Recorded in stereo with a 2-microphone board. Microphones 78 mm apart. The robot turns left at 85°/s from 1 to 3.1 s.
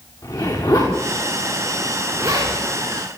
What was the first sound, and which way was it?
A zipper, 70° left (ahead or behind).